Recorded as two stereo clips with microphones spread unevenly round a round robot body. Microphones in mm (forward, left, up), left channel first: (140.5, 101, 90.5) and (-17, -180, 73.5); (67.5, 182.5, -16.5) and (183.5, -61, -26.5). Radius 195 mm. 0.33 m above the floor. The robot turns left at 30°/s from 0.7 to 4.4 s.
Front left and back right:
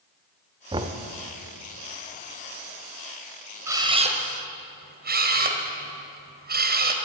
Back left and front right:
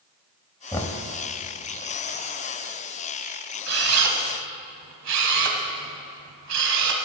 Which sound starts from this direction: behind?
Knocking, at 0.7 s.